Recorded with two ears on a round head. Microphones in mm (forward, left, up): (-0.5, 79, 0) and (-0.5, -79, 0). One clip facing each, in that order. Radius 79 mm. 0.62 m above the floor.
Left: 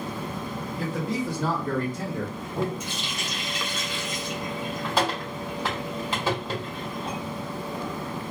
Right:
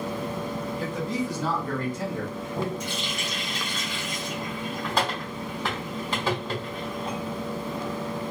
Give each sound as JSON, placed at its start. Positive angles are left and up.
{"t": 0.8, "sound": "a man speaking", "side_deg": 60, "distance_m": 1.5}
{"t": 2.8, "sound": "a running tap", "side_deg": 5, "distance_m": 1.3}